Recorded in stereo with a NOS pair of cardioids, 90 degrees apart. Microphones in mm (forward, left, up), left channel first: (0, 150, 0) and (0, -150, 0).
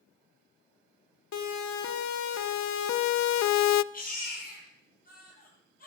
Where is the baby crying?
30° left, 9 m.